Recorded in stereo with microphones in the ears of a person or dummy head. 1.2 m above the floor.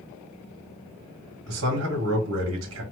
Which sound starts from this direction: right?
A man speaking, at 1.5 s.